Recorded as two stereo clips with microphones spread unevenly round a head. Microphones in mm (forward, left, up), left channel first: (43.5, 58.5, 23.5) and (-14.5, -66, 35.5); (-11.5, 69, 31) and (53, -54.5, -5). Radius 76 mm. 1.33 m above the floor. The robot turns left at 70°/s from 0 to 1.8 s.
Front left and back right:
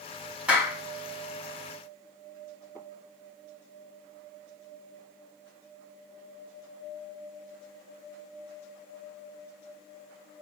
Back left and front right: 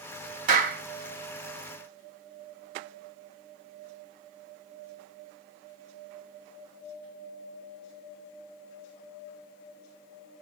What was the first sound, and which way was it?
A clap, 35° right.